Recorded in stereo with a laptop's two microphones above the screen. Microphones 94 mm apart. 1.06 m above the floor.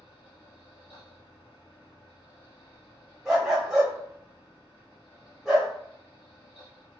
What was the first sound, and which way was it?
A fan, 55° left (ahead or behind).